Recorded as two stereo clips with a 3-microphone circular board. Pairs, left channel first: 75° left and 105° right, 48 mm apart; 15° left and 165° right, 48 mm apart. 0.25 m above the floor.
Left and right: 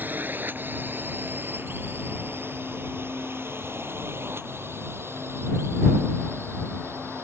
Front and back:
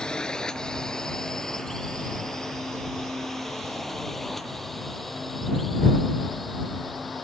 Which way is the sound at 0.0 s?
60° right.